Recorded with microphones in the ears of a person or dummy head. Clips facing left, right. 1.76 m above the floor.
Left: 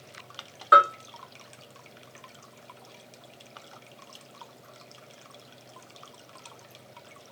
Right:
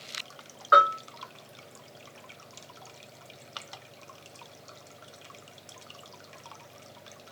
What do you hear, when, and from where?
0.7 s a bell: 25° left (ahead or behind), 0.8 m